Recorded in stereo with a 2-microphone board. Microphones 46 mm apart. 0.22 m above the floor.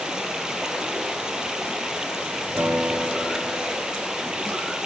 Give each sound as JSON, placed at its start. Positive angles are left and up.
{"t": 0.0, "sound": "running water", "side_deg": -15, "distance_m": 2.0}
{"t": 2.6, "sound": "a guitar", "side_deg": -60, "distance_m": 5.0}